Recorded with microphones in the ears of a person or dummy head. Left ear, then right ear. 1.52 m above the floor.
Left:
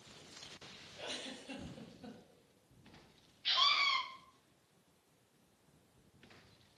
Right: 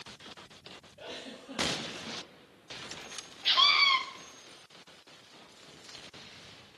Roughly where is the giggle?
Left.